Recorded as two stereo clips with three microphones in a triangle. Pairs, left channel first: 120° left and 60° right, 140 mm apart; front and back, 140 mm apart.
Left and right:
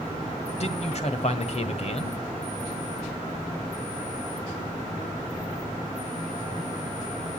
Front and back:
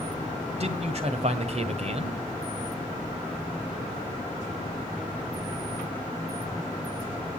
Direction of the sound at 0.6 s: 150° left.